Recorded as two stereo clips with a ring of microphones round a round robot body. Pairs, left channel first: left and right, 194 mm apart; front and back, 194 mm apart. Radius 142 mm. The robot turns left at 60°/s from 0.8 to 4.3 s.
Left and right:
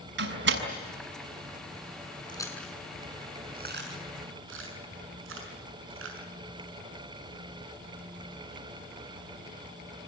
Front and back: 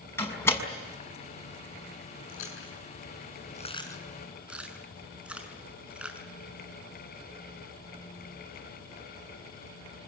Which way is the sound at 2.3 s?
25° left.